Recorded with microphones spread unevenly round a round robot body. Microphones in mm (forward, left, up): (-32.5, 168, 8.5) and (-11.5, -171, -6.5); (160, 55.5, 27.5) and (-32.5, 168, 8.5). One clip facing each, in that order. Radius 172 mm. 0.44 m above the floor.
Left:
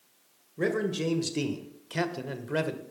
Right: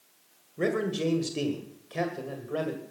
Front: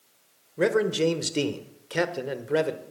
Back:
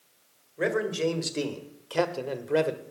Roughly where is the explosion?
I don't hear an explosion.